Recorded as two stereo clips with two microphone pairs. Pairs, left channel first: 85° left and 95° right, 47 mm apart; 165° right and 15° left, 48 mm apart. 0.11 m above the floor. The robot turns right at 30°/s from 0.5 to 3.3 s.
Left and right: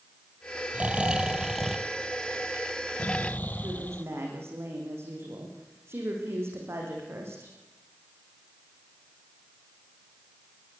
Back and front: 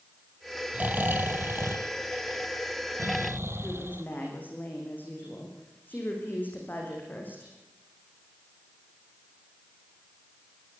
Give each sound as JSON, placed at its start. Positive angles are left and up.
{"t": 0.7, "sound": "snoring", "azimuth_deg": -35, "distance_m": 1.6}
{"t": 3.6, "sound": "a woman speaking", "azimuth_deg": -115, "distance_m": 7.5}